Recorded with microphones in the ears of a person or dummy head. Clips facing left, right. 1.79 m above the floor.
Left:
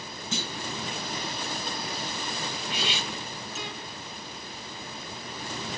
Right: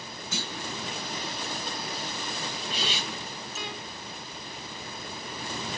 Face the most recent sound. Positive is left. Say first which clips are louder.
# even
turn(degrees=10)  # may be behind; listen again after turning